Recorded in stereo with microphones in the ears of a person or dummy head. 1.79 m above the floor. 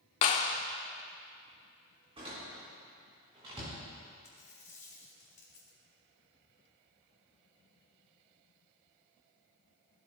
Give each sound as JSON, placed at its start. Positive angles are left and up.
{"t": 0.2, "sound": "a clap", "side_deg": 30, "distance_m": 0.6}
{"t": 2.2, "sound": "a door slam", "side_deg": -25, "distance_m": 4.0}
{"t": 4.2, "sound": "a dropped coin", "side_deg": 20, "distance_m": 1.2}